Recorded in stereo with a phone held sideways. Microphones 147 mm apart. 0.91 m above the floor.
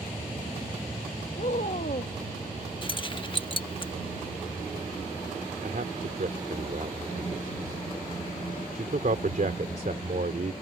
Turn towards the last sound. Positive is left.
turn(degrees=-70)  # may be behind; listen again after turning